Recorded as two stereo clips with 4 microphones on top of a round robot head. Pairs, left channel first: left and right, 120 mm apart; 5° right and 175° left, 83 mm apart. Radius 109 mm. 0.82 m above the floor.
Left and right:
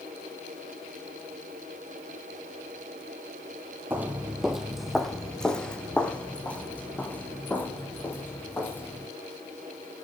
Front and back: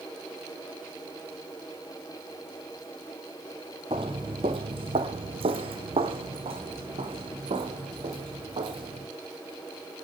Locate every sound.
3.9 s footsteps: 155° right, 1.0 m; by 9.1 s 165° left, 4 m